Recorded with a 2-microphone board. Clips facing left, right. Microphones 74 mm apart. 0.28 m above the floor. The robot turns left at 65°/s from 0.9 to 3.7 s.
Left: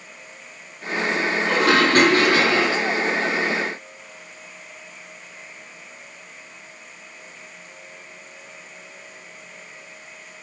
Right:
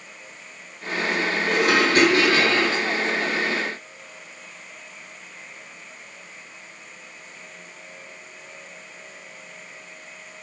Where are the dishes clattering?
100° left, 6 m; by 2.9 s 5° left, 6 m.